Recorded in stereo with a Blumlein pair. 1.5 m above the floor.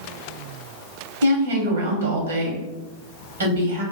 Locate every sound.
1.2 s a woman speaking: 70° right, 1.2 m